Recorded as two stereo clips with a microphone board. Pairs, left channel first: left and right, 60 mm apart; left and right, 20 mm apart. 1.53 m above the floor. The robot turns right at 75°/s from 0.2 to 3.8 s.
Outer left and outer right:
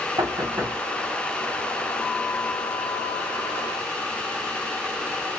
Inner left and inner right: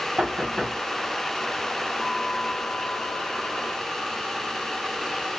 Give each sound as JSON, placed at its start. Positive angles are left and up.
{"t": 0.2, "sound": "knocking", "side_deg": -75, "distance_m": 1.5}